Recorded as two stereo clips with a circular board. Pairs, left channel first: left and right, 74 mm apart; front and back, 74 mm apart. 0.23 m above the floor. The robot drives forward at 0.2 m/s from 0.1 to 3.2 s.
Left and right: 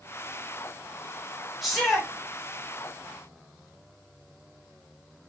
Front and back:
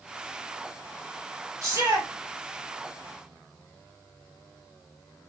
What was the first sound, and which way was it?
A shout, straight behind.